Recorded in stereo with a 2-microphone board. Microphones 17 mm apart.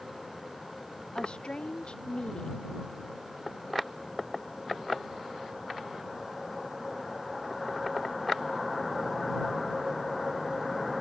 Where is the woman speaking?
65° left (ahead or behind).